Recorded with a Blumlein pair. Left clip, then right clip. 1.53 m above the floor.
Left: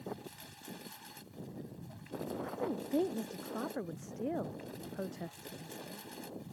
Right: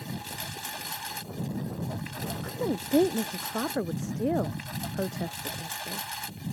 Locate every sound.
0.0 s a lawn mower: 55° right
2.4 s a woman speaking: 65° right